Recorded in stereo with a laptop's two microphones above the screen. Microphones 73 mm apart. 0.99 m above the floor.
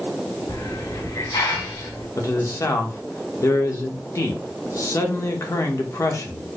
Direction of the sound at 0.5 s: 90° left.